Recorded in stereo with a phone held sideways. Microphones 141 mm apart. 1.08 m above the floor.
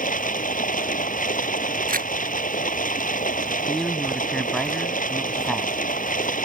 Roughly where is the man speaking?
Centre.